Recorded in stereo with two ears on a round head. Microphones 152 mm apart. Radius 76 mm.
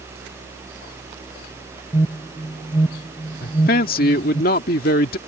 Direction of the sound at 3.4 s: 55° left (ahead or behind).